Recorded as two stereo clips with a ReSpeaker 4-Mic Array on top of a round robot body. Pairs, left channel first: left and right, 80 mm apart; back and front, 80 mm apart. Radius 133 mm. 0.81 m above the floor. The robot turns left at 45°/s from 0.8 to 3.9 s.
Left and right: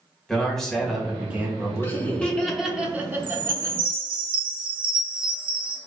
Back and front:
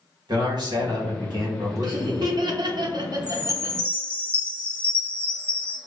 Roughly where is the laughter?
Ahead left.